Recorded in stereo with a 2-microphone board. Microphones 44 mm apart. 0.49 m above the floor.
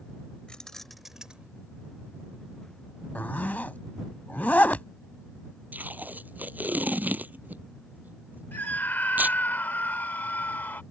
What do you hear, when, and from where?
0.5 s keys jangling: 20° left (ahead or behind); by 1.5 s 30° right (ahead or behind)
3.1 s a zipper: 40° left (ahead or behind)
5.7 s tape being pulled: 40° right (ahead or behind)
8.5 s a scream: 45° left (ahead or behind)